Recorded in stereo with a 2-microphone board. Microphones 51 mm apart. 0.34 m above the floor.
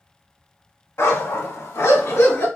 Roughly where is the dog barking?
Left.